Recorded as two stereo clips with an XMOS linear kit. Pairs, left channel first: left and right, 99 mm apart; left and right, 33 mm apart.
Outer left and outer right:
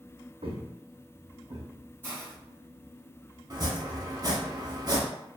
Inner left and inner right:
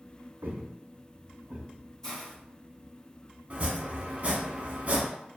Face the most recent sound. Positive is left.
turn(degrees=-40)  # may be behind; listen again after turning